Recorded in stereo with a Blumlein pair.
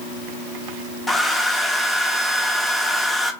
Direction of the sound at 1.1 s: 10° left.